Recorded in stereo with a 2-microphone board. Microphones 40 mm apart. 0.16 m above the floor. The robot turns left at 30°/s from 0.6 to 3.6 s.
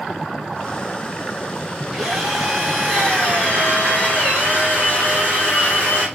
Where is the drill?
170° right, 4 m; by 6.1 s 140° left, 4 m.